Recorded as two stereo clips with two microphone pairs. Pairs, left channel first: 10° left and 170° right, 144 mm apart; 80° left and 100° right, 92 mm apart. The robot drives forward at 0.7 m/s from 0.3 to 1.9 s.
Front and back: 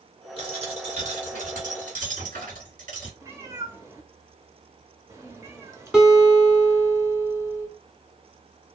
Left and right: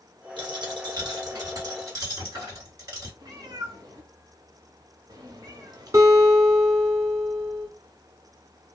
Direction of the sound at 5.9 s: 90° right.